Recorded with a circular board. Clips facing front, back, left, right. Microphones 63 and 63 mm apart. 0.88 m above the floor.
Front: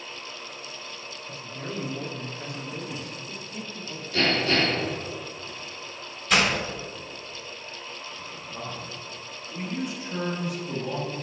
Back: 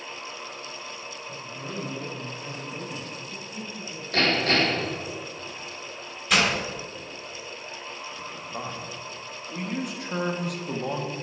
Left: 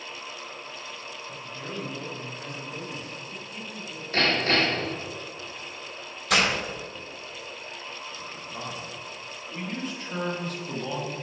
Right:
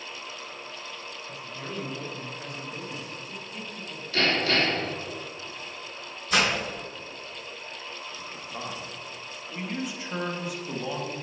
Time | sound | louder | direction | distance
1.3 | a man speaking | front 2 dB, even | straight ahead | 1.6 m
4.1 | hammering | back 1 dB, left 1 dB | 150° left | 2.5 m
6.3 | breaking glass | even, left 1 dB | 90° left | 3 m
8.2 | a man speaking | back 4 dB, right 1 dB | 170° right | 1.3 m